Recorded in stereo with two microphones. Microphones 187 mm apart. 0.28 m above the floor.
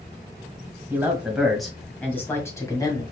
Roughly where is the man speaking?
Centre.